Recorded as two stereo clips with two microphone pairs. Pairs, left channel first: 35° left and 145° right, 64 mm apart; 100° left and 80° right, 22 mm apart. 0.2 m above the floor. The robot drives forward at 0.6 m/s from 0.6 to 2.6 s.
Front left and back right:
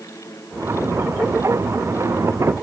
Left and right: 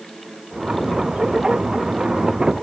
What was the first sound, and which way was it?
Only background noise.